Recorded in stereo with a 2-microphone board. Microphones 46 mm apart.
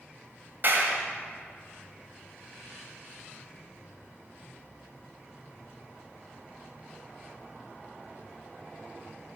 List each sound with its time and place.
0.6 s a clap: 45° right (ahead or behind), 1.7 m